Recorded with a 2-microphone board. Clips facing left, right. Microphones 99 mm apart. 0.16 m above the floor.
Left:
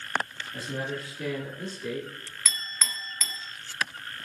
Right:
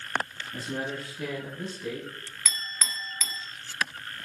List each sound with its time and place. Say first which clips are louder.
0.5 s a man speaking: even; 45° right (ahead or behind), 1.5 m; by 2.4 s 5° right (ahead or behind), 1.3 m
2.5 s a clink: even; 10° right (ahead or behind), 0.6 m